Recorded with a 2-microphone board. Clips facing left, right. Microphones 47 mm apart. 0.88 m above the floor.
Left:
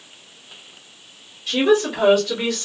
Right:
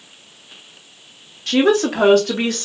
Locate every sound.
1.5 s a woman speaking: 70° right (ahead or behind), 1.3 m; by 2.6 s 45° right (ahead or behind), 1.0 m